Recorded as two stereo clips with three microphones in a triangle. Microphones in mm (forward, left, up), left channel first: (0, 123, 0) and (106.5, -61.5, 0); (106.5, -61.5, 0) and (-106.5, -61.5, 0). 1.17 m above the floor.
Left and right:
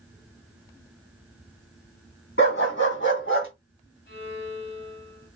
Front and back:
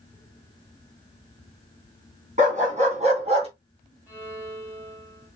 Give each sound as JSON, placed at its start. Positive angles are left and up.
{"t": 2.4, "sound": "a dog barking", "azimuth_deg": 130, "distance_m": 2.5}
{"t": 4.1, "sound": "a violin", "azimuth_deg": 100, "distance_m": 2.5}